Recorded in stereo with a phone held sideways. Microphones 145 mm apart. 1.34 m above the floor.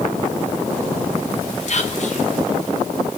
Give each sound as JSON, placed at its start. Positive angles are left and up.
{"t": 1.7, "sound": "whispering", "side_deg": 50, "distance_m": 0.7}